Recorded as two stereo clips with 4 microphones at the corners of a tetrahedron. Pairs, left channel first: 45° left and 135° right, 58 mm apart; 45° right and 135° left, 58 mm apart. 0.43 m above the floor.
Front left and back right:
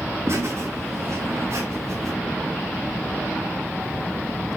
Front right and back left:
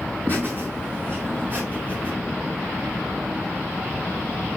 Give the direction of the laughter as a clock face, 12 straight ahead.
6 o'clock.